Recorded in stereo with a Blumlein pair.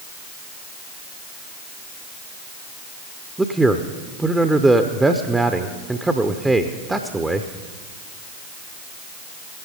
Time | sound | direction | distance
3.4 | a man speaking | 5° right | 0.7 m